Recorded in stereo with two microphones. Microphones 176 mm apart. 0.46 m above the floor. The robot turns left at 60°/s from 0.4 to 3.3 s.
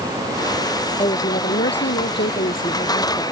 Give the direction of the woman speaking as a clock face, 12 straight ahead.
7 o'clock.